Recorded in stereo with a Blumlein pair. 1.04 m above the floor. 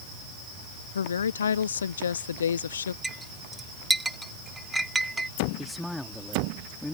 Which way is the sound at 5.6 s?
5° left.